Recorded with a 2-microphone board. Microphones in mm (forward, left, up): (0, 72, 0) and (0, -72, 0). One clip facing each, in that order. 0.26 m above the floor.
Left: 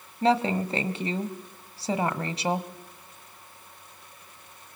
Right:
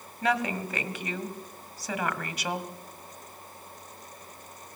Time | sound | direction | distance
0.2 | a woman speaking | 30° left (ahead or behind) | 1.5 m